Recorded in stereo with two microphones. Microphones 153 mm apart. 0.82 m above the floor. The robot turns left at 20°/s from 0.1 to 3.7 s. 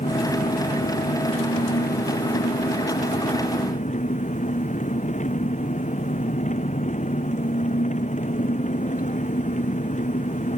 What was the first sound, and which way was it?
An engine running, 125° left.